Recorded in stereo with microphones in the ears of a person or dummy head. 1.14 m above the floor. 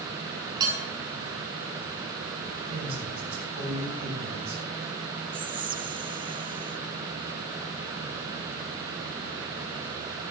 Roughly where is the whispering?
Right.